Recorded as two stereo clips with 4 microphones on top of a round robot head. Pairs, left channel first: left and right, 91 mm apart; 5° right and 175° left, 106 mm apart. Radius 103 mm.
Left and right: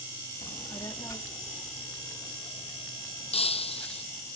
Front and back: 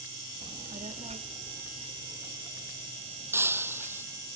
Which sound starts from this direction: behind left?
A child speaking, at 0.4 s.